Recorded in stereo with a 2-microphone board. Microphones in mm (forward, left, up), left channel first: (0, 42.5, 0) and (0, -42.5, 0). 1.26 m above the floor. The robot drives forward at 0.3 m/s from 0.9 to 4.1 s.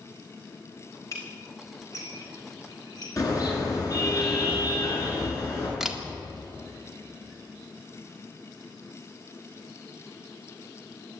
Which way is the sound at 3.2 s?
40° left (ahead or behind).